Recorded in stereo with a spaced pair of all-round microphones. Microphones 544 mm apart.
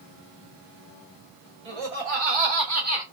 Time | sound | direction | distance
1.6 | laughter | 85° right | 1.7 m